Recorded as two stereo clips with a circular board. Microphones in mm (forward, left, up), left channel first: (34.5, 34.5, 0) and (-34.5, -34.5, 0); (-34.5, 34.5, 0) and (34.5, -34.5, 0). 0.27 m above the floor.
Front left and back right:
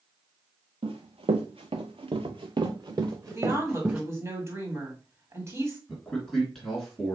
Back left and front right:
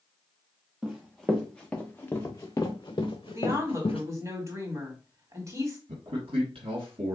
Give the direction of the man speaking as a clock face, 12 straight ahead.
1 o'clock.